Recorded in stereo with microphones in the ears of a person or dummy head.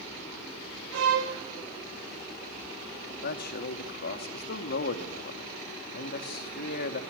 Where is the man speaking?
55° left (ahead or behind), 2 m.